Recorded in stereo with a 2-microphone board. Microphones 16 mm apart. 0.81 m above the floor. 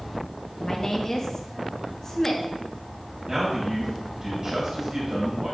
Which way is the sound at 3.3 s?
40° right (ahead or behind).